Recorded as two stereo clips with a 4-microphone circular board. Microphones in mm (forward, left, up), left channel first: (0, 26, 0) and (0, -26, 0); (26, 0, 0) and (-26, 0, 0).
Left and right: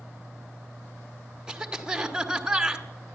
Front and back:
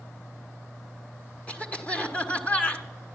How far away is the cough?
About 1.2 m.